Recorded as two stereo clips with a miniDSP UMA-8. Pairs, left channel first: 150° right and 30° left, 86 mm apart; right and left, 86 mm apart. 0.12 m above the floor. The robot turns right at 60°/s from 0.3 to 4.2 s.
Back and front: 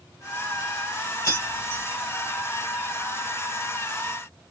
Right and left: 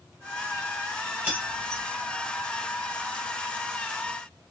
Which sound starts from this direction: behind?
Keys jangling, at 1.2 s.